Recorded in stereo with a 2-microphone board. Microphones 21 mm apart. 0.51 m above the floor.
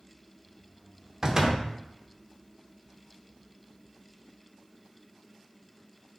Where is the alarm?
No alarm in this recording.